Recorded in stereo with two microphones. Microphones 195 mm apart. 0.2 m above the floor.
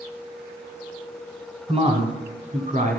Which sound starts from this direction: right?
A man speaking, at 1.7 s.